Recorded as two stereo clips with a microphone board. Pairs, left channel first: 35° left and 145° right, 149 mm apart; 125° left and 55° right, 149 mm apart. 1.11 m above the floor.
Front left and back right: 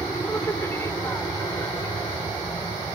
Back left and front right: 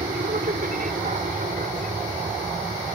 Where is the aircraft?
45° right; by 3.0 s 35° right.